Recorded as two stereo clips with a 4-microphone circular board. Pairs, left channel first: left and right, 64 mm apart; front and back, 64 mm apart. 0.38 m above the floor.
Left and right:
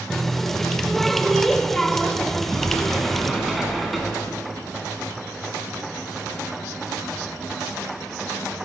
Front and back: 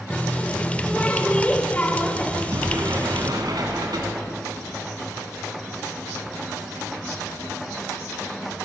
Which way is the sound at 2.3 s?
Straight behind.